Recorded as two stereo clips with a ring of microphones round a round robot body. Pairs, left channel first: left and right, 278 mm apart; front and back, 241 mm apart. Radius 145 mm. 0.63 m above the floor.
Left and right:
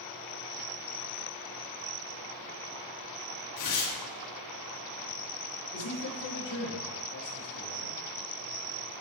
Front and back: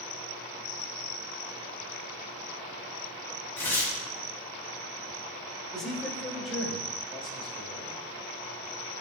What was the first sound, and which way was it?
Tearing paper, 80° left.